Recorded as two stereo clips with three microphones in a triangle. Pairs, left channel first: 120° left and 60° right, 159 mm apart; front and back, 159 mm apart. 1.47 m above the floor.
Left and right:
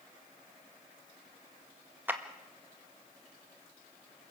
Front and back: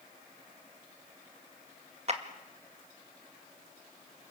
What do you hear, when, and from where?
2.1 s a clap: 140° right, 1.8 m